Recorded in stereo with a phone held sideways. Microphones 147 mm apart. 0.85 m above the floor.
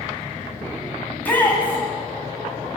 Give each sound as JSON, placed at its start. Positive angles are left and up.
{"t": 1.1, "sound": "a shout", "side_deg": 10, "distance_m": 7.0}